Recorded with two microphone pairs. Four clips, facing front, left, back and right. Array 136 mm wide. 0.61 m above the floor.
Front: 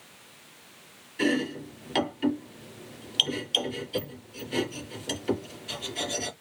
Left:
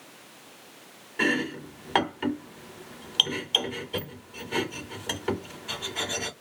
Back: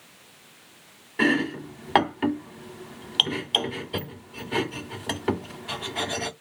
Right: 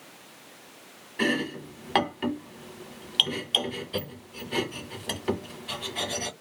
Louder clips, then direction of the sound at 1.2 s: Even, back 3 dB; 175° left.